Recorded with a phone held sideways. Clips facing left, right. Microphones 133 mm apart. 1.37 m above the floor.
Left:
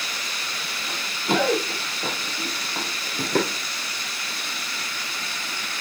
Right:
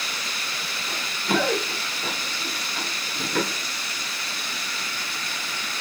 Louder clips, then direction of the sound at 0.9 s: Left 1 dB; 15° left (ahead or behind).